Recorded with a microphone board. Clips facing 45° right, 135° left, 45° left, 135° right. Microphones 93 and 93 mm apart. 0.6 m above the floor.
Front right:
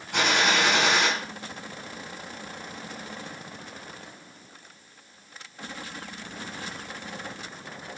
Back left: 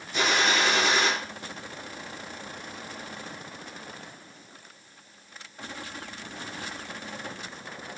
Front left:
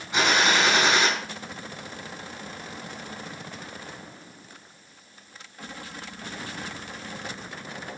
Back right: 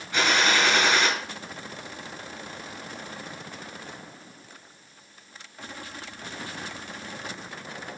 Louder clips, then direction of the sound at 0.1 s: Front right 1 dB, front left 1 dB; 25° right.